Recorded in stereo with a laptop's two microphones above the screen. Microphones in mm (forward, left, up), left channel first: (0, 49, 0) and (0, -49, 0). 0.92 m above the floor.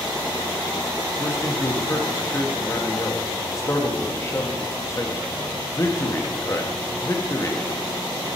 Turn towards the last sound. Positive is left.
turn(degrees=30)  # may be behind; listen again after turning